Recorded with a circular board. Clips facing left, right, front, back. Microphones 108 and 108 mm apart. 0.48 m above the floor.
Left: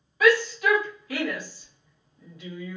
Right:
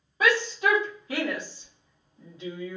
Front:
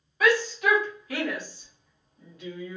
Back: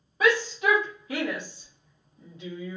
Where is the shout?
135° right, 1.4 m.